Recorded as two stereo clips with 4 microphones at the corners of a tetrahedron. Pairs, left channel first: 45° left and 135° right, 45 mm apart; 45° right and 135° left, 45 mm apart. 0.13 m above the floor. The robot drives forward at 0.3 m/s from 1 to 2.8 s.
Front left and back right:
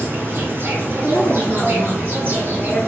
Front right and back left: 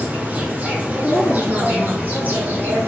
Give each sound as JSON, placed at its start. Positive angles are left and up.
{"t": 0.0, "sound": "an insect", "azimuth_deg": -170, "distance_m": 1.2}
{"t": 1.0, "sound": "a woman speaking", "azimuth_deg": 140, "distance_m": 1.6}